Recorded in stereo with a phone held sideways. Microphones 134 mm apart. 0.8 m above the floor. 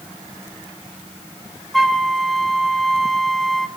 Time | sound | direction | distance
1.7 | a flute | centre (ahead or behind) | 0.9 m